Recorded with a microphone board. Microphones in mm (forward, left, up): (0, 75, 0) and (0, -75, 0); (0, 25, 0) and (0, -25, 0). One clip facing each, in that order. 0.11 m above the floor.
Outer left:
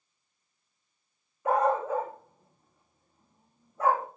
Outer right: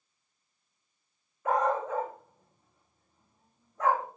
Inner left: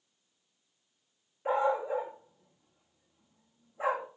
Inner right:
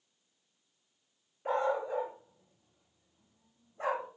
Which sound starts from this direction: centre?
A dog barking, at 1.4 s.